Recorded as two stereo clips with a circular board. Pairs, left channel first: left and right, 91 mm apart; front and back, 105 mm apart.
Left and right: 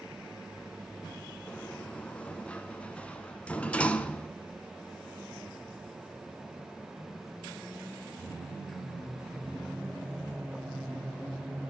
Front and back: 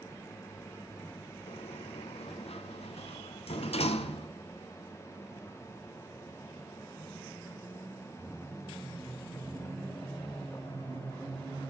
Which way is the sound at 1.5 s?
15° left.